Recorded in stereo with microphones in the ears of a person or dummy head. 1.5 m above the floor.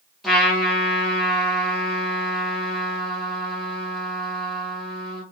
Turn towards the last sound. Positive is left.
turn(degrees=0)  # may be behind; listen again after turning